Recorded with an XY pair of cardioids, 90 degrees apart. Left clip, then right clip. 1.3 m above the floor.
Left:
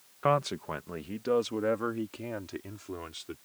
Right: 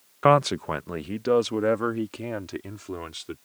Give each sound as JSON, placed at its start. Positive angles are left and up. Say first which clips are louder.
{"t": 0.2, "sound": "a man speaking", "louder": "right 8 dB", "azimuth_deg": -65}